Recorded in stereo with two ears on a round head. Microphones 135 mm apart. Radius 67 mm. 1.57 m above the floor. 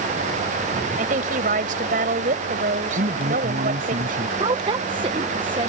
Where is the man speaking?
60° right (ahead or behind).